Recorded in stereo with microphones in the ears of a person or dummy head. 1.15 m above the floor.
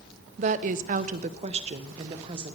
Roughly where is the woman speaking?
Right.